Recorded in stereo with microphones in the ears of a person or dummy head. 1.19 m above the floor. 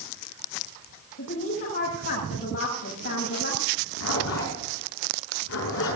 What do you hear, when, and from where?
1.2 s a woman speaking: 60° left (ahead or behind), 7.5 m
3.7 s a zipper: 70° left (ahead or behind), 6 m